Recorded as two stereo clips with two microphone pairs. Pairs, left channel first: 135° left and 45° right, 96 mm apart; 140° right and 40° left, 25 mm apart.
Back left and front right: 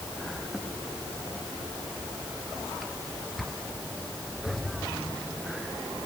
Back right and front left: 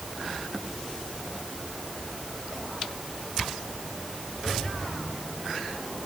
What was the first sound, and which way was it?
Only background noise.